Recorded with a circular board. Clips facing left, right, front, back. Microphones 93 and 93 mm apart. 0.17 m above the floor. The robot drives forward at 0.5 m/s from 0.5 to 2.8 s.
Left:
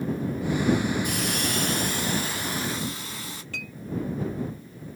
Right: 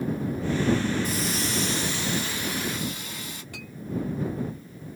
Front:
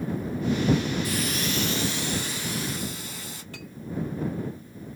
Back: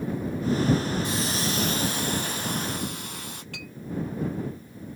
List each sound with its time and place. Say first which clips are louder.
1.0 s a hiss: even, even; 115° left, 0.9 m; by 3.4 s 145° left, 1.5 m
3.5 s a clink: left 3 dB, even; 165° right, 2.5 m